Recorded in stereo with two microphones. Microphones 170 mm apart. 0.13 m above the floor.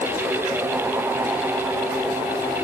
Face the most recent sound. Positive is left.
No sound to turn to.